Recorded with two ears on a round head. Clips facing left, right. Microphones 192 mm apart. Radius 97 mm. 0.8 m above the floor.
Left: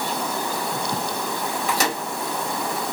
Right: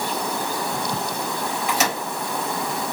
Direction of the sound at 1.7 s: 30° left (ahead or behind).